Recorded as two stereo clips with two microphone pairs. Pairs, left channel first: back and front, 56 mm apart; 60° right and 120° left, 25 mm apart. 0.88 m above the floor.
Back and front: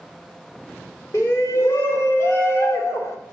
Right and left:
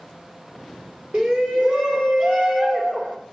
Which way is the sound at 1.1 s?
155° left.